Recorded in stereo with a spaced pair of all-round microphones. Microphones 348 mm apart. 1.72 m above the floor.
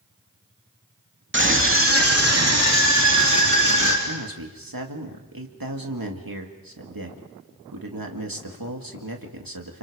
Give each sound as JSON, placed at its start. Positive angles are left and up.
{"t": 1.3, "sound": "a scream", "side_deg": -35, "distance_m": 2.5}
{"t": 4.1, "sound": "a man speaking", "side_deg": -75, "distance_m": 2.5}